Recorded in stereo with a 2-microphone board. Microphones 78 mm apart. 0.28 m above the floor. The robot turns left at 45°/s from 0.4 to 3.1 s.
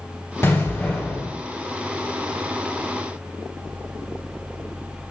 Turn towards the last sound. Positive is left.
turn(degrees=-85)